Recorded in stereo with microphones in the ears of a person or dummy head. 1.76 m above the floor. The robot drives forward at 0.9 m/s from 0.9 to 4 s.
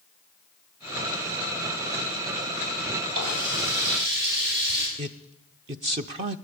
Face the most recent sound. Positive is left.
turn(degrees=-30)  # may be behind; listen again after turning